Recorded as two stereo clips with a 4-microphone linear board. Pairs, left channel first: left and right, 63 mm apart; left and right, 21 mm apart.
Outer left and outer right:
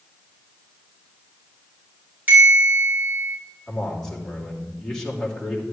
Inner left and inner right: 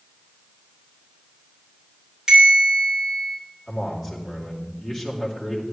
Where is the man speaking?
10° left (ahead or behind), 3 m.